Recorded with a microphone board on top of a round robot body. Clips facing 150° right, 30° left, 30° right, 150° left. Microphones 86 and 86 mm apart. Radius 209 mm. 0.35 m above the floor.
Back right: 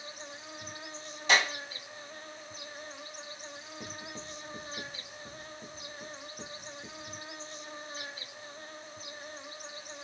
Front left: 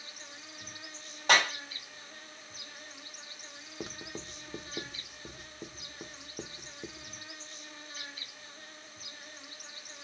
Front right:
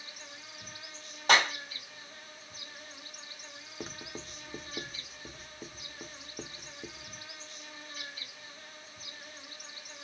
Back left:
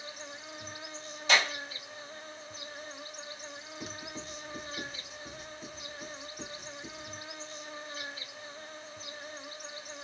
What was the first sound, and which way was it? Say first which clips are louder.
An insect: back right 5 dB, back left 6 dB; 175° left.